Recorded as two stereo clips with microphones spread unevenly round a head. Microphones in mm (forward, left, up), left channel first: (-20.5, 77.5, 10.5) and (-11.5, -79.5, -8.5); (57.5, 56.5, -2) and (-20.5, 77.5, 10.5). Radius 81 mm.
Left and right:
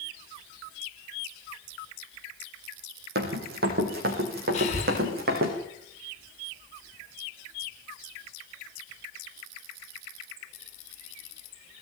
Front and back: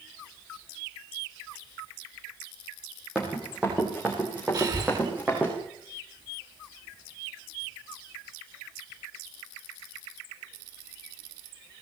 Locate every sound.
3.1 s running footsteps: 115° right, 4.5 m
4.5 s breathing: 135° left, 5 m